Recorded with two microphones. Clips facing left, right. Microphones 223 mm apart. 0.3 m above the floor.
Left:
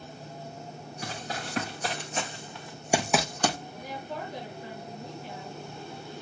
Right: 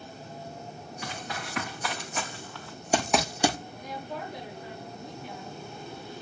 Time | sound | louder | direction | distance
1.0 | running footsteps | left 2 dB | 40° left (ahead or behind) | 1.7 m
3.8 | a woman speaking | even | centre (ahead or behind) | 5 m